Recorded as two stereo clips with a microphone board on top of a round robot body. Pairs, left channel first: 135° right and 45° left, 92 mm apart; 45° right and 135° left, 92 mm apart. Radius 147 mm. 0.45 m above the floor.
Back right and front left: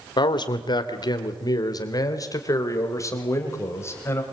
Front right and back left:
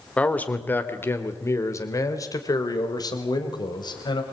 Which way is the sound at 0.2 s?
120° right.